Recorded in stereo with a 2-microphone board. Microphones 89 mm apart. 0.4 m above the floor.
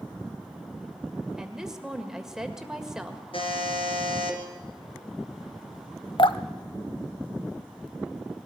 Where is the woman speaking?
5° right (ahead or behind), 1.8 m.